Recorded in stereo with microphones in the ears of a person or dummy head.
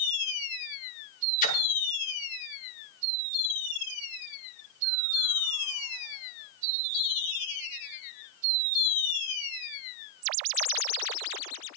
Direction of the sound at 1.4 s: 40° left (ahead or behind).